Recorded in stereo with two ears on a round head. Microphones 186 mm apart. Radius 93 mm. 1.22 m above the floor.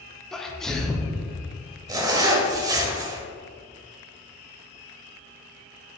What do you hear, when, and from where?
0.3 s a sneeze: 5° left (ahead or behind), 0.8 m
1.9 s a zipper: 20° right (ahead or behind), 1.0 m